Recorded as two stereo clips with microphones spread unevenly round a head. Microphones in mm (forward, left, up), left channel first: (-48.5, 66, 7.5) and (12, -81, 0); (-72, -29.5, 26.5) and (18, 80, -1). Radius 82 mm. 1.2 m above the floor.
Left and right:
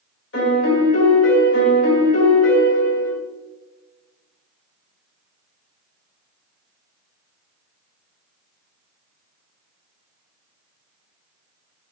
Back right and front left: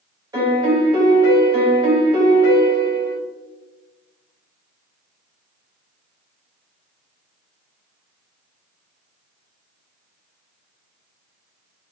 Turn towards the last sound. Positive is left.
turn(degrees=110)